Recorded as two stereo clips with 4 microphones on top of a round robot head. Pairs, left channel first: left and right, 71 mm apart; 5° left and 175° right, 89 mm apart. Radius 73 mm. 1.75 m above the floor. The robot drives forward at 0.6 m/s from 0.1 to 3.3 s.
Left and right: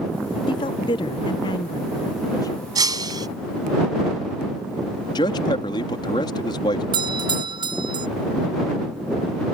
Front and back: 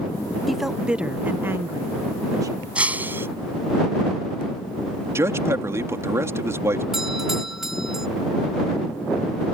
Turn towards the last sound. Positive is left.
turn(degrees=-90)